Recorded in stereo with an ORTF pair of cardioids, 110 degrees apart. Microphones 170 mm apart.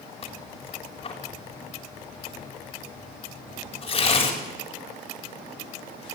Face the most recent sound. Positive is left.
turn(degrees=30)